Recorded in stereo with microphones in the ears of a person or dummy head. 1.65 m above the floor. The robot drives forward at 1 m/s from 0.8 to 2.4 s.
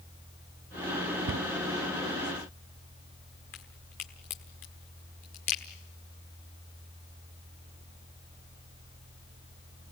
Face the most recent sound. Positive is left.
turn(degrees=15)  # may be behind; listen again after turning